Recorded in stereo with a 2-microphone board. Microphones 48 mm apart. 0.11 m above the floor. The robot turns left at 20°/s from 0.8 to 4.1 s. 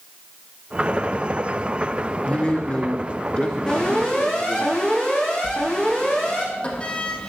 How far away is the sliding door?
About 3 m.